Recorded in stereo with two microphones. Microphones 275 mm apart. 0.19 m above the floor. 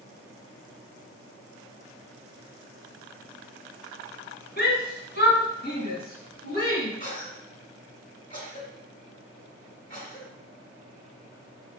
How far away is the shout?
About 1.4 m.